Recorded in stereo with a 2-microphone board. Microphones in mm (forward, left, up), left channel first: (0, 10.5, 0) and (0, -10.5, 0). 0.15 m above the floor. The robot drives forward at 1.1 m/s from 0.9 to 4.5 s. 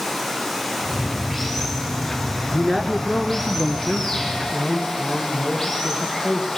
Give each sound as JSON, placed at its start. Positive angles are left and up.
{"t": 0.0, "sound": "running water", "side_deg": 15, "distance_m": 8.5}
{"t": 2.5, "sound": "a man speaking", "side_deg": 15, "distance_m": 1.6}